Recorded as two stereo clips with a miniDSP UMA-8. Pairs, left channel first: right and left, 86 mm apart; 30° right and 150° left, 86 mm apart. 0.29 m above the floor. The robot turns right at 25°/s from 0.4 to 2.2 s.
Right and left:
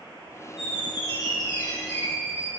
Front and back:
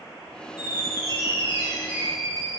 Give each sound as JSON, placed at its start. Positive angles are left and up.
{"t": 0.6, "sound": "a squeak", "azimuth_deg": -70, "distance_m": 4.0}